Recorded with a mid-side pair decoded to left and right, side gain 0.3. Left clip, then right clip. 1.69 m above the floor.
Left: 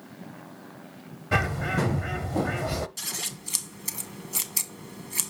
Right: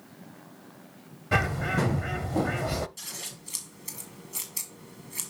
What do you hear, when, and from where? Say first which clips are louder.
1.3 s a bird: even; straight ahead, 0.5 m
3.0 s scissors: left 6 dB; 70° left, 1.3 m